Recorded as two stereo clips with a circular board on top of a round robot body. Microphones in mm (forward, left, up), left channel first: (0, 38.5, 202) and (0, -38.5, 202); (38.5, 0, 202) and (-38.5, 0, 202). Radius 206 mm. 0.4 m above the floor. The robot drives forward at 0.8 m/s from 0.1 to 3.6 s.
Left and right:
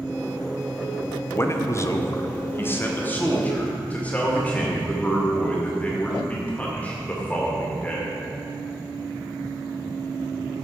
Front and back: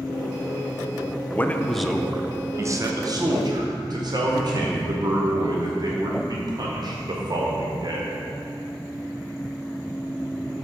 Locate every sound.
1.3 s a man speaking: 50° left, 1.0 m; by 8.2 s 160° left, 1.7 m